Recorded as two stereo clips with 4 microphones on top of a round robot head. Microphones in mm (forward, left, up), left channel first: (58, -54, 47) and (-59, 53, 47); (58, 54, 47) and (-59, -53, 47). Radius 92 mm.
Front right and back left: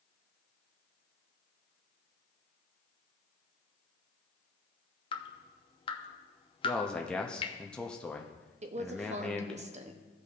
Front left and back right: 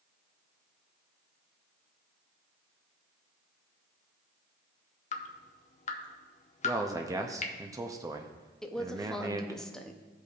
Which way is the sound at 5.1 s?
10° left.